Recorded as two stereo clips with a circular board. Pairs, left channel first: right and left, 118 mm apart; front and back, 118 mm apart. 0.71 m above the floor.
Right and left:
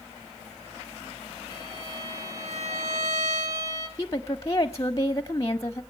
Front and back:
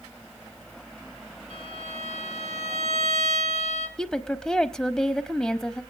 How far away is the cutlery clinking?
I don't hear cutlery clinking.